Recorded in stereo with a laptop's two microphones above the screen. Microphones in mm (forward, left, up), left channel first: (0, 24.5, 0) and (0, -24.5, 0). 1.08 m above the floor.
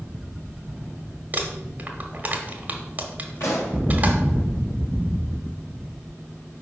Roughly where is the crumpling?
Right.